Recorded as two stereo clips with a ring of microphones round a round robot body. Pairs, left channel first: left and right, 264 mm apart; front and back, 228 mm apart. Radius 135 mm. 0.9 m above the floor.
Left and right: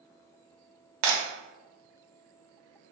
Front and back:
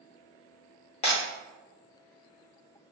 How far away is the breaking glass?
About 0.6 m.